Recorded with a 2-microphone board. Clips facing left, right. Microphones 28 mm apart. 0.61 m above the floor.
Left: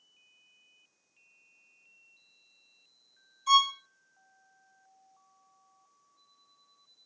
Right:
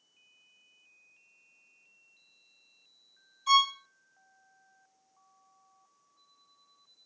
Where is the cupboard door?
No cupboard door in this recording.